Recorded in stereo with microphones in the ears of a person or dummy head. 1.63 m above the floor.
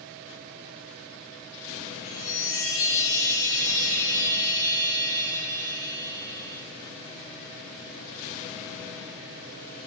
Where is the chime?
55° left (ahead or behind), 1.1 m.